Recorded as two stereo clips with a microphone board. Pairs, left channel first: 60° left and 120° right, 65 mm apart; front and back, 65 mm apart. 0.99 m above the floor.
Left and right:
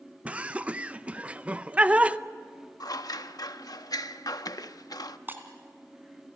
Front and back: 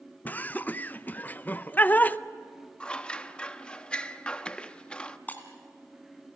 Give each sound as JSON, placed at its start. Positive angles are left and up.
{"t": 0.2, "sound": "laughter", "azimuth_deg": -55, "distance_m": 0.6}
{"t": 2.8, "sound": "scissors", "azimuth_deg": 70, "distance_m": 0.7}
{"t": 5.3, "sound": "breaking glass", "azimuth_deg": -65, "distance_m": 2.0}